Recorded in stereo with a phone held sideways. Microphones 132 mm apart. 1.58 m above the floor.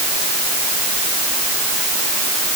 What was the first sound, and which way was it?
Only background noise.